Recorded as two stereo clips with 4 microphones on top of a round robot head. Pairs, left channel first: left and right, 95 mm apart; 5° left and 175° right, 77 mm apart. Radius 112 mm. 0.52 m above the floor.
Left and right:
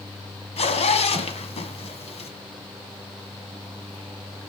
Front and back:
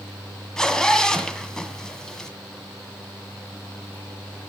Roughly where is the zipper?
Left.